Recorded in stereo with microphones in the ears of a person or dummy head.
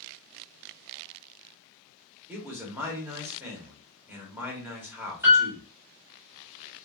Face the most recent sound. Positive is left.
turn(degrees=-10)  # may be behind; listen again after turning